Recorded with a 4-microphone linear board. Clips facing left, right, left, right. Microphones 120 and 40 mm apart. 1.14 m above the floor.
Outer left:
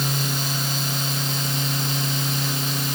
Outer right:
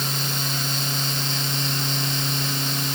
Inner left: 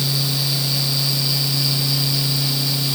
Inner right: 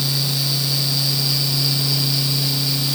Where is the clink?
I don't hear a clink.